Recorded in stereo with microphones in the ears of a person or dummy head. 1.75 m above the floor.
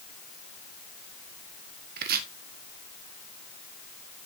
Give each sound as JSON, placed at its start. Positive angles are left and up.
{"t": 2.0, "sound": "chopping", "side_deg": -55, "distance_m": 1.4}